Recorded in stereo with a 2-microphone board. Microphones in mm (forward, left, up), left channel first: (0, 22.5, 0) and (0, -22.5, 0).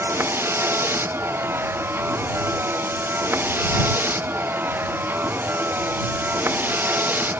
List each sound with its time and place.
0.0 s a vehicle: 60° right (ahead or behind); by 7.4 s 45° right (ahead or behind)